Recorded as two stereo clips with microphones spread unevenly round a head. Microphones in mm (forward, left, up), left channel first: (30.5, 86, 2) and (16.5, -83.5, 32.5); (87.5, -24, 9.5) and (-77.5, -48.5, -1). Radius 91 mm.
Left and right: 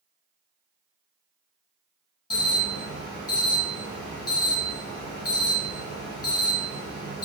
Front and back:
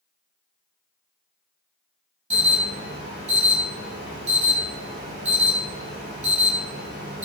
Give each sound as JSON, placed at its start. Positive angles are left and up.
{"t": 2.3, "sound": "an alarm", "azimuth_deg": 145, "distance_m": 1.6}